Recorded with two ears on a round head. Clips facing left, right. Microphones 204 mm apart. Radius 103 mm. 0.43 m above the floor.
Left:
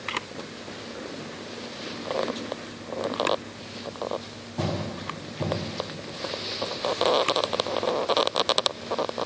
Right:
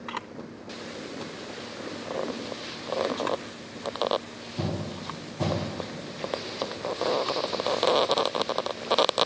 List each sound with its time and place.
0.1 s a camera shutter: 35° left (ahead or behind), 0.5 m